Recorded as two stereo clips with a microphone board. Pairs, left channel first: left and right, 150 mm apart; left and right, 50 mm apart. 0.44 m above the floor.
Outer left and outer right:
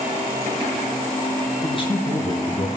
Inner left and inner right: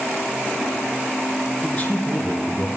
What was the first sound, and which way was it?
A man speaking, 35° left (ahead or behind).